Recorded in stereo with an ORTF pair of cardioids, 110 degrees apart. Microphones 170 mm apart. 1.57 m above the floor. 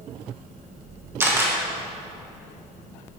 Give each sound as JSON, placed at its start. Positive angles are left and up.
{"t": 1.2, "sound": "a camera shutter", "azimuth_deg": -15, "distance_m": 1.7}